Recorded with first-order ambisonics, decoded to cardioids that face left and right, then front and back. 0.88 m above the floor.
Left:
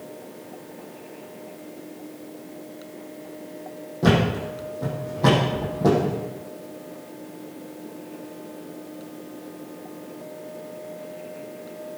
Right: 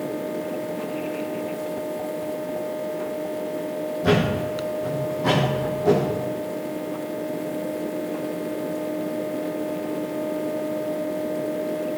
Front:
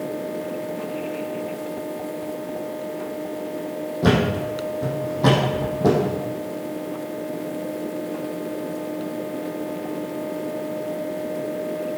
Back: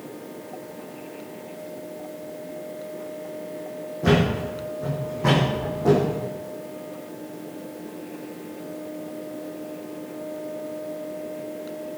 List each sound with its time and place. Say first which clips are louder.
4.0 s a thud: even, front 1 dB; 40° left, 4.5 m